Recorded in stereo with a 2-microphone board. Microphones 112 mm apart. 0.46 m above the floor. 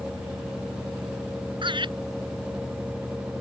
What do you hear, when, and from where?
1.6 s laughter: 45° right (ahead or behind)